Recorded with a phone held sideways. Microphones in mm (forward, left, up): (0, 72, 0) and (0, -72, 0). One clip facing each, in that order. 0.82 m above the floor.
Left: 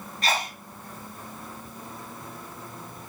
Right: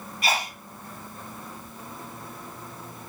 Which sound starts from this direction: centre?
A sneeze, at 0.2 s.